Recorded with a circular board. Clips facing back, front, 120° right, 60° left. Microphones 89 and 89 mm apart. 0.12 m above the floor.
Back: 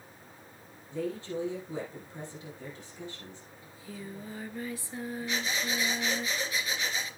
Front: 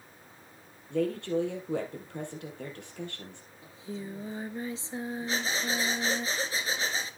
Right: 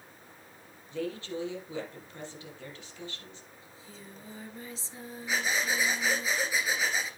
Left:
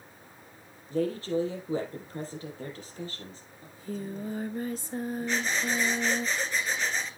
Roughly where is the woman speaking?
Ahead.